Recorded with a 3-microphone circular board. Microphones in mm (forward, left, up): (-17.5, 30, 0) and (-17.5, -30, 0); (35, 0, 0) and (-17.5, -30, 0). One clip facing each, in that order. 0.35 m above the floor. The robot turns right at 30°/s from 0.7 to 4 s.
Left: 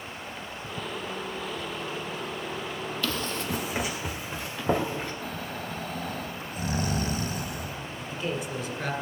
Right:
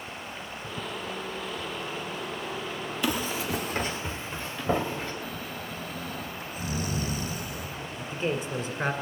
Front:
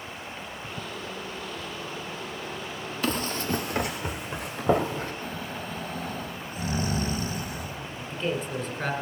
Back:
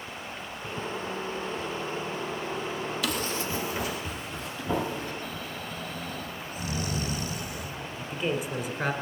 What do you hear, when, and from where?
3.0 s running footsteps: 20° right, 0.7 m; by 5.1 s 15° left, 2.5 m
5.2 s snoring: 70° left, 1.2 m
8.0 s a man speaking: 80° right, 1.6 m